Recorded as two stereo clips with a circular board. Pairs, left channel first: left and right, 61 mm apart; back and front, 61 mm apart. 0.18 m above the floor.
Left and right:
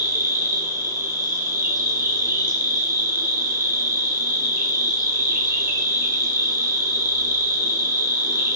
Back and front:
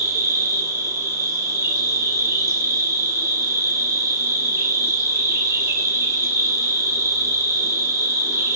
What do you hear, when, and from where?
0.0 s an insect: 40° right, 0.7 m